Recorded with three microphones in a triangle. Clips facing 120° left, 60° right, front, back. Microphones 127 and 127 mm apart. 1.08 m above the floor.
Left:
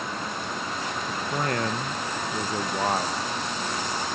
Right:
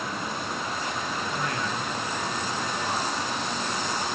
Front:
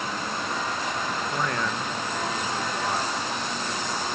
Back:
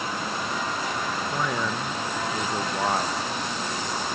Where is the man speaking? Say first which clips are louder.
Left 2 dB, back 1 dB; 85° left, 1.2 m; by 3.2 s 140° left, 1.4 m.